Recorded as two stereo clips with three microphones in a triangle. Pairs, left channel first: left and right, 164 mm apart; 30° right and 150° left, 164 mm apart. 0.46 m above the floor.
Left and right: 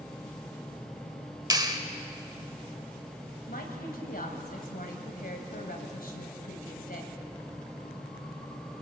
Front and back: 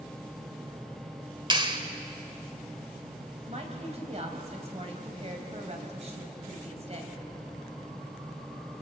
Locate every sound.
1.5 s a clap: 150° right, 1.4 m
3.5 s a woman speaking: 105° left, 3 m